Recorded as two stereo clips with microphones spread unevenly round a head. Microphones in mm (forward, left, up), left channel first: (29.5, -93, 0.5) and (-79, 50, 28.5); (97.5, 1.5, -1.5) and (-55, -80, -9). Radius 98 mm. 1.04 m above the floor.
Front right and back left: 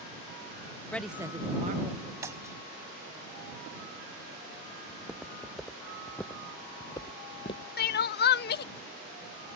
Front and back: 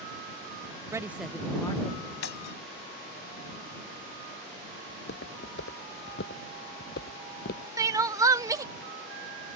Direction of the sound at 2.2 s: 55° left.